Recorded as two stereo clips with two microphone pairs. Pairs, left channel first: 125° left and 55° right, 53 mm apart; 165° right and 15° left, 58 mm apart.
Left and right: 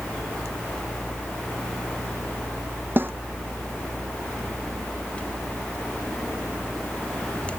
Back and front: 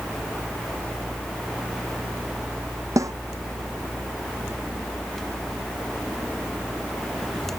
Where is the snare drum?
10° right.